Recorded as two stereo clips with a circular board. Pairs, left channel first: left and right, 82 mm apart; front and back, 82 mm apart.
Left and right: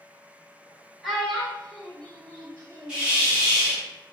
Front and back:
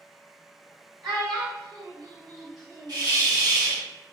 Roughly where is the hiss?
Behind.